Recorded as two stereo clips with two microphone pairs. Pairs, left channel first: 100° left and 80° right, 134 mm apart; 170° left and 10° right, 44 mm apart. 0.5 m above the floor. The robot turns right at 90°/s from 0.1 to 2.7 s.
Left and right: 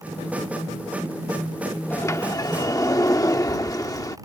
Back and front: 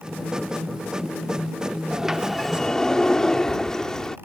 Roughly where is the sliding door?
Ahead left.